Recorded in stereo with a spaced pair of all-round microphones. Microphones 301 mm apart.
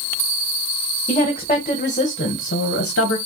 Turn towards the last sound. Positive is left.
turn(degrees=55)  # may be behind; listen again after turning